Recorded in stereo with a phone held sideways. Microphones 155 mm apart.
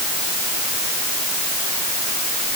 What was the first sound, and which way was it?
Only background noise.